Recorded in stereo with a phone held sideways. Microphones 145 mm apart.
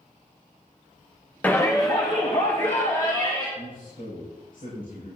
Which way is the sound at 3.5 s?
75° left (ahead or behind).